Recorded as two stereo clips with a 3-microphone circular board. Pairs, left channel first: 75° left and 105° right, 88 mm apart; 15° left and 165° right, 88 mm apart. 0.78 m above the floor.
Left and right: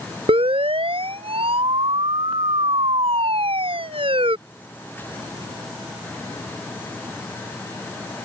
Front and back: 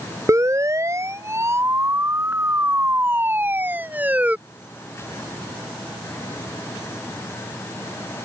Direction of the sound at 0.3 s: 110° right.